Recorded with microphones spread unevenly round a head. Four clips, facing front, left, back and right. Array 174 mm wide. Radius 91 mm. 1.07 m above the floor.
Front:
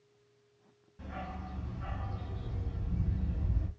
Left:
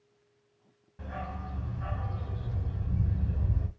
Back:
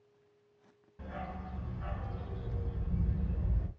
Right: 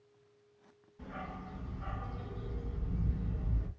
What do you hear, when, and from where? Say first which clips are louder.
1.0 s a dog barking: left 4 dB, even; 95° left, 1.8 m